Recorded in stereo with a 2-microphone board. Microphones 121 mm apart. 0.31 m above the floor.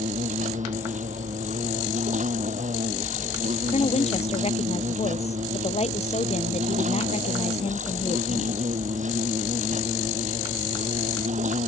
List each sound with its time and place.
0.0 s an insect: 85° right
3.7 s a woman speaking: 60° left (ahead or behind)